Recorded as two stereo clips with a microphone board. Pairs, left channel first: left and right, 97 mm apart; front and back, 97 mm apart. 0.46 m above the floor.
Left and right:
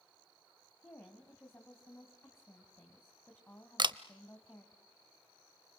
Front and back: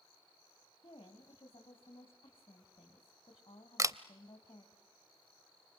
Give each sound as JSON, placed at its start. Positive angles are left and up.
{"t": 0.8, "sound": "a woman speaking", "azimuth_deg": 25, "distance_m": 2.5}
{"t": 3.8, "sound": "a camera shutter", "azimuth_deg": -125, "distance_m": 0.7}